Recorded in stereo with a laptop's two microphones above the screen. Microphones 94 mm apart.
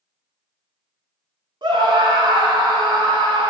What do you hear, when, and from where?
1.6 s a scream: 55° right (ahead or behind), 2.5 m